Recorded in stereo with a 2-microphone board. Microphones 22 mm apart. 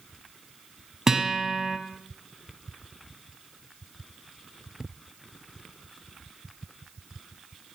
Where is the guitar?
25° right (ahead or behind), 1.3 m.